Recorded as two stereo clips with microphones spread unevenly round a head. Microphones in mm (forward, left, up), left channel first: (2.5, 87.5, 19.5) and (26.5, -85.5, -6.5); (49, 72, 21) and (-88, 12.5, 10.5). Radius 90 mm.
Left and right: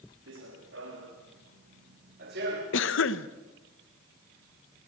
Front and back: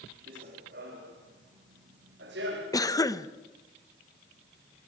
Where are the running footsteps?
110° right, 5 m; by 2.6 s 125° right, 5 m.